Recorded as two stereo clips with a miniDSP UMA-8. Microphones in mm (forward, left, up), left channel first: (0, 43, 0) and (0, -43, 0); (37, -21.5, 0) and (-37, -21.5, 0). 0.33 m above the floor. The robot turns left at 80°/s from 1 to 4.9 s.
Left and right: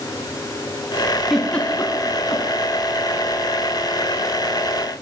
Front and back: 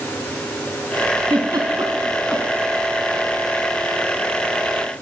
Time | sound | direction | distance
1.3 | a giggle | 175° right | 4 m